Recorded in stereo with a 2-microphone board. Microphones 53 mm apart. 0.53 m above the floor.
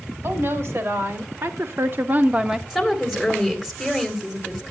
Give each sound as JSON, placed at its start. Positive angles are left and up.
{"t": 0.2, "sound": "a woman speaking", "side_deg": -60, "distance_m": 2.0}
{"t": 2.7, "sound": "a woman speaking", "side_deg": -5, "distance_m": 3.0}